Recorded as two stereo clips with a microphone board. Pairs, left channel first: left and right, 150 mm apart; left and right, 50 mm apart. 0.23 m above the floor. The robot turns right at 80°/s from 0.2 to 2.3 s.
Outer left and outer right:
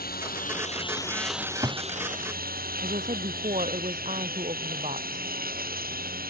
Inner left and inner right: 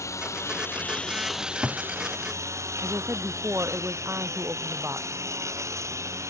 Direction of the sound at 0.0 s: 95° left.